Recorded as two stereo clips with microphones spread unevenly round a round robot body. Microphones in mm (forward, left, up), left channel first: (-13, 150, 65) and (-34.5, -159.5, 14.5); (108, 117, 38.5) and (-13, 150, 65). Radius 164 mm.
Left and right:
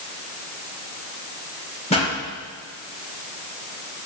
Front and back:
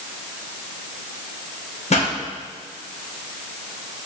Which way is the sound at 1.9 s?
15° left.